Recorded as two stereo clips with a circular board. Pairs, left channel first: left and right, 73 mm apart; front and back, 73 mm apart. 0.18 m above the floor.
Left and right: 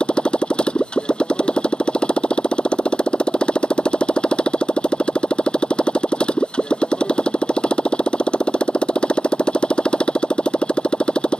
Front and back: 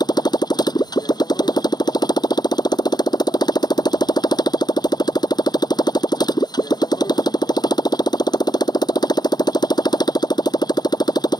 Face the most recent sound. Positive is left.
turn(degrees=15)